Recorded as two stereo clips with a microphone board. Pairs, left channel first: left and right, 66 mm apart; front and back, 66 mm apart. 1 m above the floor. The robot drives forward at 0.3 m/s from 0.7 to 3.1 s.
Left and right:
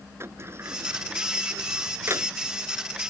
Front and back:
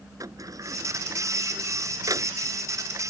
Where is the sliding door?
145° right.